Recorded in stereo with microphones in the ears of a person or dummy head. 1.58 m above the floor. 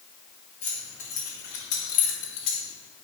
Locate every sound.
0.6 s keys jangling: 45° left (ahead or behind), 1.8 m; by 2.7 s 70° left (ahead or behind), 1.5 m